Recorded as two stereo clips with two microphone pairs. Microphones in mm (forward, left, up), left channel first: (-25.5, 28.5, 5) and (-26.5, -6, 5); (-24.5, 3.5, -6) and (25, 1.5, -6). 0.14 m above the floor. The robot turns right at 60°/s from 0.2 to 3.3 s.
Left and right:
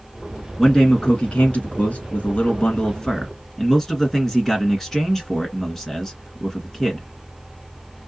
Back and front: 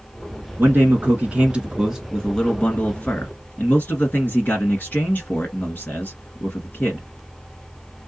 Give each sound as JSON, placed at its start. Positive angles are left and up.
{"t": 0.6, "sound": "a man speaking", "azimuth_deg": 0, "distance_m": 1.7}